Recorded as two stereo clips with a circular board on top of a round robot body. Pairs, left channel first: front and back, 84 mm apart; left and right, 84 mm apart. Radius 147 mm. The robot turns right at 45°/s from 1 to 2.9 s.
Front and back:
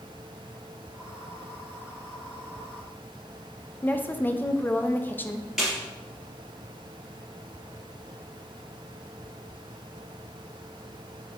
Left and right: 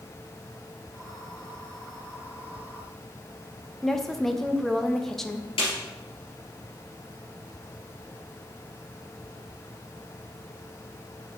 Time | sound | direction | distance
3.8 | a woman speaking | 15° left | 0.9 m
5.6 | a snare drum | 95° left | 2.5 m